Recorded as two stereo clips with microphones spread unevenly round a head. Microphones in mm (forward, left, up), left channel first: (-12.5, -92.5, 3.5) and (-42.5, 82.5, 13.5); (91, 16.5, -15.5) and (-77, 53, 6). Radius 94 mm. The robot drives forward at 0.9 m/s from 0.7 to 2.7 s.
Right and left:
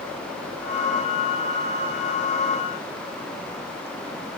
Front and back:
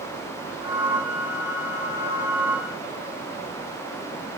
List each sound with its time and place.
Only background noise.